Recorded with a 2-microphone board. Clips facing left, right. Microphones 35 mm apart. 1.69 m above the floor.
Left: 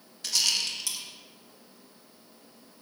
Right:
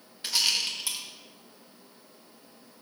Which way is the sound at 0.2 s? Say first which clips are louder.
Right 1 dB; 25° right (ahead or behind).